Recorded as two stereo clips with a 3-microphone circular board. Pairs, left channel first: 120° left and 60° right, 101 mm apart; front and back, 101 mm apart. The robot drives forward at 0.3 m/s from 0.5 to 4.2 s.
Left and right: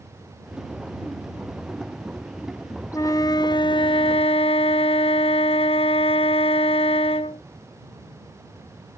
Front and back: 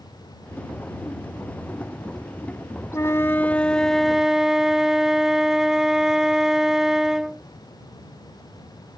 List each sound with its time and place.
2.9 s a flute: 60° left; by 7.4 s 95° left